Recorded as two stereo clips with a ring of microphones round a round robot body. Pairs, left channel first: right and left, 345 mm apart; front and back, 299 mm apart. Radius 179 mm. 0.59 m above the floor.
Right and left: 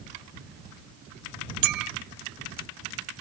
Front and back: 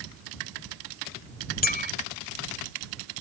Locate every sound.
1.6 s a clink: 60° left